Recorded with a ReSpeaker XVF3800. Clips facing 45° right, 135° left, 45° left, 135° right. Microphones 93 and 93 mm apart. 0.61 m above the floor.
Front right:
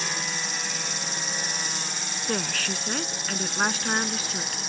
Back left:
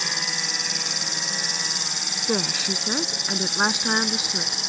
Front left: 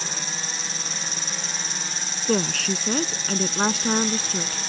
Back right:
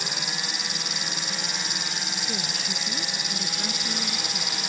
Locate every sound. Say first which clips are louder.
0.0 s an insect: even, even; 150° left
2.3 s a woman speaking: back left 4 dB, front left 10 dB; 60° left